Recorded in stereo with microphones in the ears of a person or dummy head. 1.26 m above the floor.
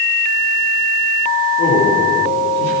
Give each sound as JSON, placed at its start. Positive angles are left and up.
{"t": 1.6, "sound": "a man speaking", "side_deg": 65, "distance_m": 3.0}